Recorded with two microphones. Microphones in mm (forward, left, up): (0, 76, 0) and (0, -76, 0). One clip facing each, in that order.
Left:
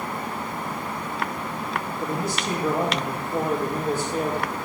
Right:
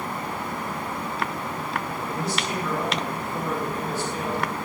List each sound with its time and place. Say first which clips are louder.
2.0 s a man speaking: left 1 dB; 50° left (ahead or behind), 4.5 m